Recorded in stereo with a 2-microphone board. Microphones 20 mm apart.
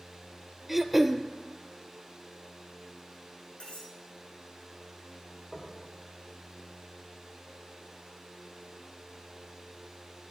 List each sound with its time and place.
0.7 s throat clearing: 15° right (ahead or behind), 0.5 m
3.6 s cutlery clinking: 65° left (ahead or behind), 4.5 m
5.5 s knocking: 25° left (ahead or behind), 2.5 m